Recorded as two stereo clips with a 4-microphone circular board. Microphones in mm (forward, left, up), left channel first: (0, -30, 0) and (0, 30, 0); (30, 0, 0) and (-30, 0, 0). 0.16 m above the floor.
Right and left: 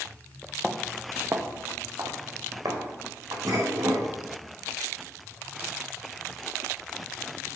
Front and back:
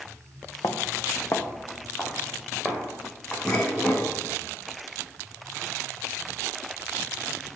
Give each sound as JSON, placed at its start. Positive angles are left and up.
{"t": 0.6, "sound": "footsteps", "azimuth_deg": -5, "distance_m": 1.1}
{"t": 3.5, "sound": "dishes clattering", "azimuth_deg": 70, "distance_m": 5.0}